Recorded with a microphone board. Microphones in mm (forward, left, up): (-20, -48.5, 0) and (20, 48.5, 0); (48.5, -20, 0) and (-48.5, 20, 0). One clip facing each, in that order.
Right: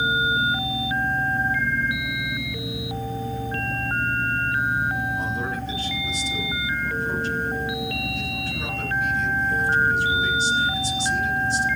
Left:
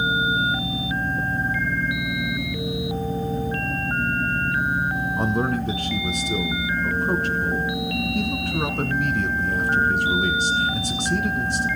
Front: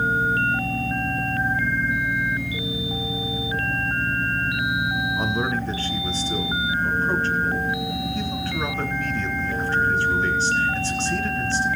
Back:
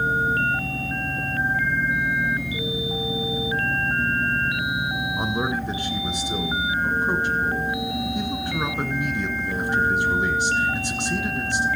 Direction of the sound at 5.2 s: 85° left.